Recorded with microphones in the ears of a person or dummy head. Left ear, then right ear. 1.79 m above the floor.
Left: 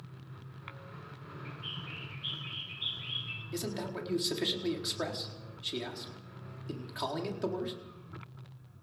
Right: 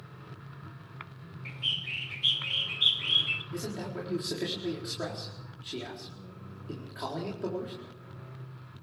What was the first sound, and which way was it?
A bird, 30° right (ahead or behind).